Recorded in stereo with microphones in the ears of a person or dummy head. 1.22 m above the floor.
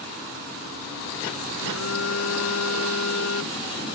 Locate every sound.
1.6 s a phone buzzing: 85° left